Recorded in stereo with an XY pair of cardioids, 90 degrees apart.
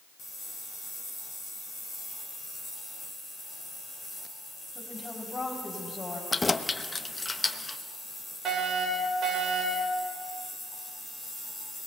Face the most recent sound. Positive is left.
turn(degrees=-70)